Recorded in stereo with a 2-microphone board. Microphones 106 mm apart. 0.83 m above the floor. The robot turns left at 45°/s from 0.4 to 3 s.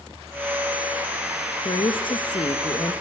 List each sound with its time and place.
1.6 s a woman speaking: 95° left, 0.5 m; by 2.9 s 40° left, 0.5 m